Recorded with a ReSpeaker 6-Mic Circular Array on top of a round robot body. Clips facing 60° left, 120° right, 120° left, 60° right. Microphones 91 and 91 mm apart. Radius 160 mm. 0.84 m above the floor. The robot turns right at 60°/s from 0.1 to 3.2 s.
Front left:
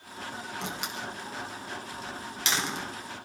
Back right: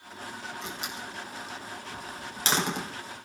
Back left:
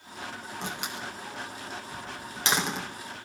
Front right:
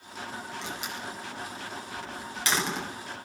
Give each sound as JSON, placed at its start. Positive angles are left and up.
{"t": 0.6, "sound": "a door slam", "azimuth_deg": 75, "distance_m": 3.5}